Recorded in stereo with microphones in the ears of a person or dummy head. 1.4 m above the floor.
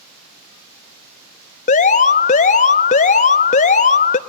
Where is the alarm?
30° left (ahead or behind), 0.8 m.